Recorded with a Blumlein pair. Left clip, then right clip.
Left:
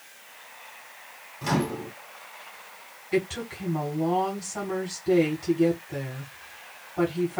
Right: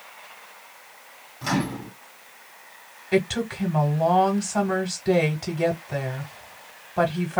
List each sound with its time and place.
1.4 s a microwave: 5° right, 1.6 m
3.1 s a woman speaking: 50° right, 1.3 m